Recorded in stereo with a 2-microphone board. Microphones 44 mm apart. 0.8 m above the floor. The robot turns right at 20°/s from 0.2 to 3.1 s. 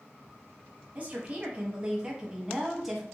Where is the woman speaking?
50° right, 0.8 m; by 3.0 s 5° right, 0.8 m.